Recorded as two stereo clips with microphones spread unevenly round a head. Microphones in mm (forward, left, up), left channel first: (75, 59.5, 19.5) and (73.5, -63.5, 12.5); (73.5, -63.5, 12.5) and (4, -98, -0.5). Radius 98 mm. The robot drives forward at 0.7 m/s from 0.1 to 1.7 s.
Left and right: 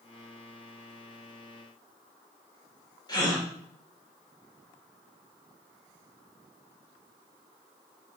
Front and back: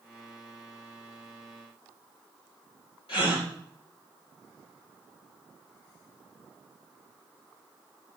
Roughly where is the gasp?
Ahead left.